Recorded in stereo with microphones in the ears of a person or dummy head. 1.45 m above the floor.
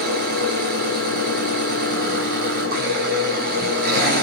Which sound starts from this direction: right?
An engine running, at 0.0 s.